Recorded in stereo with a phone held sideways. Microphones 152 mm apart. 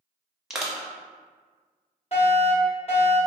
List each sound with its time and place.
0.5 s crushing: 5° right (ahead or behind), 0.8 m
2.1 s a fire alarm: 40° left (ahead or behind), 1.8 m